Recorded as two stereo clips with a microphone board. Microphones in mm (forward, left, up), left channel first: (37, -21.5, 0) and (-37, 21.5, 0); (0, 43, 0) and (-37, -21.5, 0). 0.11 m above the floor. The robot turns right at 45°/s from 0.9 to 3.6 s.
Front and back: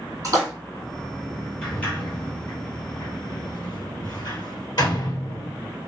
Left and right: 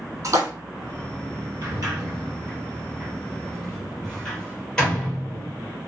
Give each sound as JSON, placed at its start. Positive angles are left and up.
{"t": 0.2, "sound": "a splash", "azimuth_deg": -160, "distance_m": 3.5}
{"t": 1.6, "sound": "a sliding door", "azimuth_deg": -110, "distance_m": 3.0}